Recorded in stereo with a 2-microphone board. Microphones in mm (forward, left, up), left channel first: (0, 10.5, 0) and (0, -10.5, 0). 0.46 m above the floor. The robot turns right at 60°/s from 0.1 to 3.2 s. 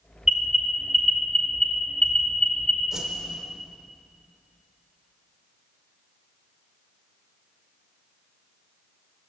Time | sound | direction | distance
0.2 | an alarm | 25° right (ahead or behind) | 2.5 m
2.9 | a whoosh | 20° right (ahead or behind) | 0.9 m